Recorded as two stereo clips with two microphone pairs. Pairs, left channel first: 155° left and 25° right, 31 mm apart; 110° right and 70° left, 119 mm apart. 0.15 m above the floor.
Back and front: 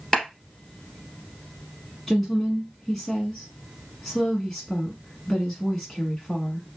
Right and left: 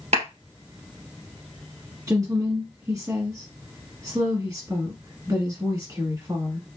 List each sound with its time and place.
0.1 s a clap: 70° left, 2.5 m
2.1 s a woman speaking: 70° left, 1.2 m